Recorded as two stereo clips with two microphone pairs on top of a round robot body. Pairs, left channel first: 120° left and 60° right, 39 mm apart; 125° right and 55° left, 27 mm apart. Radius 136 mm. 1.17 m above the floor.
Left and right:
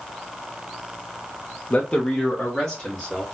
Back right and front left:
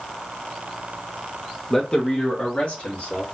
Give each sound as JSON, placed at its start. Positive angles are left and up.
{"t": 1.7, "sound": "a man speaking", "azimuth_deg": 160, "distance_m": 0.7}